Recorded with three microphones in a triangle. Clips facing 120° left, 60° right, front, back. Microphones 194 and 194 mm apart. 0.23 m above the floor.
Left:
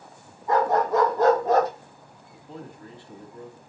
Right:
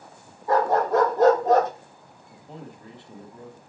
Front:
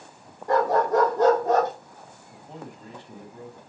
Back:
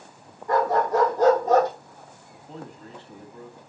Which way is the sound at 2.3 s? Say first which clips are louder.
Left 1 dB, back 1 dB; 40° right.